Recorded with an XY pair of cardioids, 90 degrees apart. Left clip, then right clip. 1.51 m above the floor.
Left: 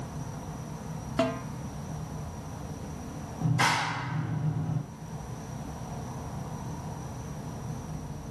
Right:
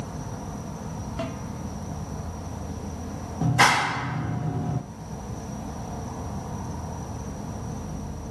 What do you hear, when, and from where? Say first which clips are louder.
0.0 s an insect: right 4 dB; 50° right, 1.6 m
1.2 s a snare drum: left 6 dB; 50° left, 2.5 m
3.4 s a clap: right 7 dB; 65° right, 2 m